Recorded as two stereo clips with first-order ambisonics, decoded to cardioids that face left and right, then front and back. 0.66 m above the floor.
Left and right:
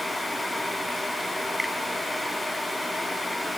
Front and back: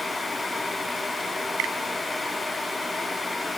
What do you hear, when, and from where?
1.6 s a finger snap: straight behind